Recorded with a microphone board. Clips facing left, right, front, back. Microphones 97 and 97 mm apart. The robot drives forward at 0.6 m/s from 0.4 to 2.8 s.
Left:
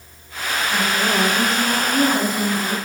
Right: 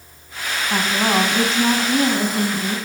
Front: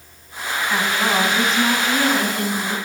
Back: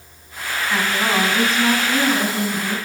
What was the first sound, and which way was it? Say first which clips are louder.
A woman speaking: right 2 dB, even; 85° right.